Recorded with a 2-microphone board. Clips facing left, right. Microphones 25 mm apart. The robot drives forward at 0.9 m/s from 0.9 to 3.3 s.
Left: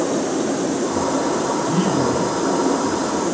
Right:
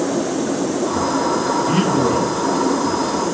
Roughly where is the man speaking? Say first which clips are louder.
Right 2 dB; right.